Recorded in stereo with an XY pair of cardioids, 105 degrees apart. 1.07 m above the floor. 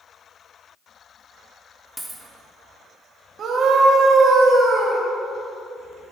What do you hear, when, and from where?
2.0 s a dropped coin: 5° right, 1.1 m
3.4 s a scream: 60° right, 1.7 m